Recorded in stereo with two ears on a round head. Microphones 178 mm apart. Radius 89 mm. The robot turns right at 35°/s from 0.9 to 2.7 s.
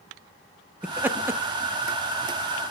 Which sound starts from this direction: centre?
Laughter, at 0.8 s.